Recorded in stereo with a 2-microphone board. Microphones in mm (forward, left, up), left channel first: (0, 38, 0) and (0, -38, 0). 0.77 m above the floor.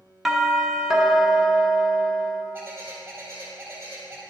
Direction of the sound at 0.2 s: 5° right (ahead or behind).